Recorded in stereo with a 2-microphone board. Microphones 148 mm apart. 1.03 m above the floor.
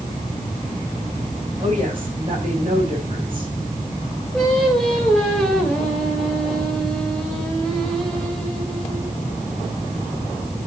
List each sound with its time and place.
1.6 s a woman speaking: 35° right (ahead or behind), 5 m
4.3 s singing: 5° left (ahead or behind), 2.5 m